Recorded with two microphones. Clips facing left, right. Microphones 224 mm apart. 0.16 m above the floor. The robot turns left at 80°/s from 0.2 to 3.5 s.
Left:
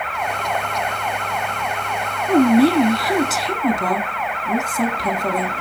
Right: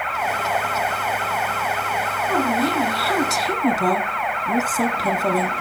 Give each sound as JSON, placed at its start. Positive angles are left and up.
{"t": 2.3, "sound": "a woman speaking", "azimuth_deg": 90, "distance_m": 1.2}